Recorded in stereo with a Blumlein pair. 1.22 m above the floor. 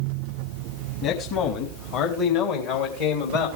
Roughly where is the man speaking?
Ahead left.